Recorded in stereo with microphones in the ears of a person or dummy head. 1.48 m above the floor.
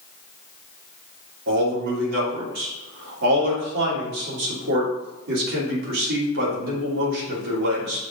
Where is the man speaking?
65° right (ahead or behind), 3 m.